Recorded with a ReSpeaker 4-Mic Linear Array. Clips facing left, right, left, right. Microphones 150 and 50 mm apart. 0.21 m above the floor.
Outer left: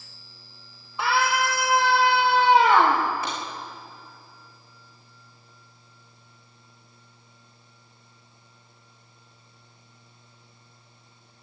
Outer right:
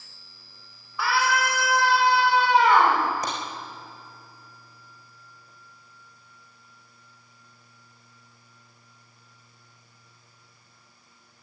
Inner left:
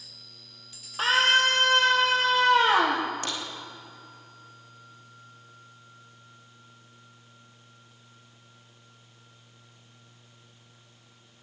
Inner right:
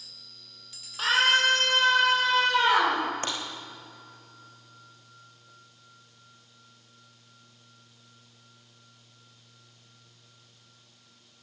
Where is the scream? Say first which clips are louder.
Outer left 1 dB, inner left 1 dB; 20° left (ahead or behind), 8.5 m; by 3.0 s 25° left (ahead or behind), 7.5 m.